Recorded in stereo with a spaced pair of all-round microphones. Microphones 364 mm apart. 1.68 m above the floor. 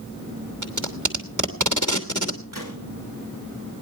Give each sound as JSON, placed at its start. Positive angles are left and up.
{"t": 0.6, "sound": "tape being pulled", "side_deg": -55, "distance_m": 2.0}
{"t": 2.5, "sound": "a gunshot", "side_deg": -60, "distance_m": 9.5}